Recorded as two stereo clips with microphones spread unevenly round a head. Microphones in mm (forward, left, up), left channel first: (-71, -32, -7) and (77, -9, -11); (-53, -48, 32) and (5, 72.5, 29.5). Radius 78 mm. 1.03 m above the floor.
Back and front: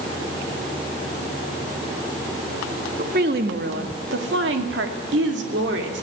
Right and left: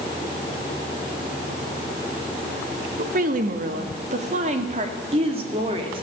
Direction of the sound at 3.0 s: 45° left.